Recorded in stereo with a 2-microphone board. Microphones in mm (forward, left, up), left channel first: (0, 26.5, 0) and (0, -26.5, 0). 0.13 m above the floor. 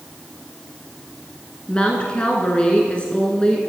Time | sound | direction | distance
1.7 | a woman speaking | 20° left (ahead or behind) | 1.5 m